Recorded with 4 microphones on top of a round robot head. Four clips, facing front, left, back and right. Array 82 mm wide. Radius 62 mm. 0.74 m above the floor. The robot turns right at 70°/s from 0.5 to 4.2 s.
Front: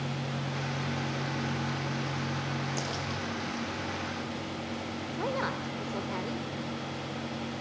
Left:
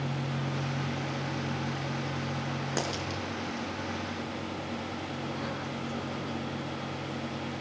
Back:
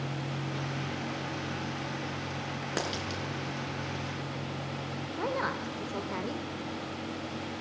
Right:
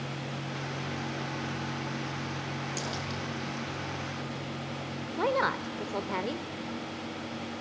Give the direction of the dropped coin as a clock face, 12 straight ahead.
7 o'clock.